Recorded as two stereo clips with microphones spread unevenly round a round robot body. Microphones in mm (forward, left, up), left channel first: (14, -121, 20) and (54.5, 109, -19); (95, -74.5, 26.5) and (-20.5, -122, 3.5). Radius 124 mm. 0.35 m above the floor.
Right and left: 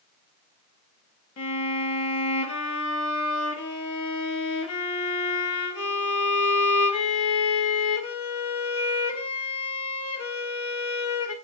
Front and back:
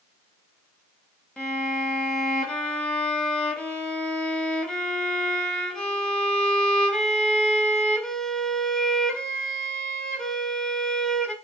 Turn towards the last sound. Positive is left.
turn(degrees=-65)